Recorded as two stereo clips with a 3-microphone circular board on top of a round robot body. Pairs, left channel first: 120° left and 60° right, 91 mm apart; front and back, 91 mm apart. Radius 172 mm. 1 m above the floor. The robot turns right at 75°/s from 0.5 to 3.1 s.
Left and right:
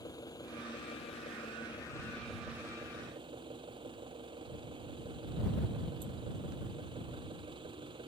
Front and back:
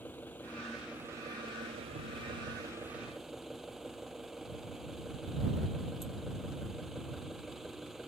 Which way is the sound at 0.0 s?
70° left.